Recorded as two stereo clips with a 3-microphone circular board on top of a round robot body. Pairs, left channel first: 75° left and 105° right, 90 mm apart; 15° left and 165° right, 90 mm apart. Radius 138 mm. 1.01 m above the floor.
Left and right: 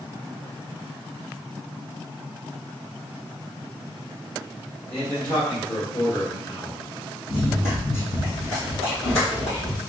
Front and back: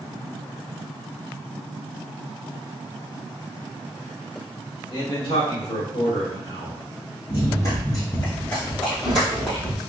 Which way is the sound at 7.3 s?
55° left.